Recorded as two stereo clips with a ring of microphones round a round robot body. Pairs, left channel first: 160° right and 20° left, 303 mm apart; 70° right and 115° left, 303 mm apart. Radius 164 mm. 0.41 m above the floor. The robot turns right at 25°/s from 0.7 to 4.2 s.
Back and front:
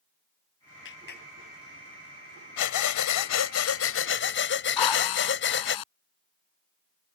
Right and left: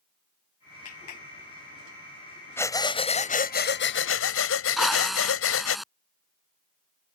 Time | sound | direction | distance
0.8 | a clap | 105° right | ?
2.6 | breathing | 150° right | ?
4.8 | a drill | 160° right | ?